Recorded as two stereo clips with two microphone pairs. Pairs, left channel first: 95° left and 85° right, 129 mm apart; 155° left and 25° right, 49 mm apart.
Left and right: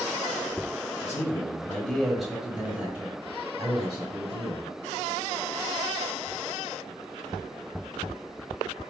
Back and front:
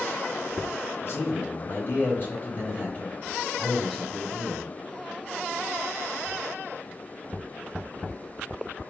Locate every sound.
1.0 s a man speaking: 155° left, 1.5 m; by 4.6 s 130° right, 2 m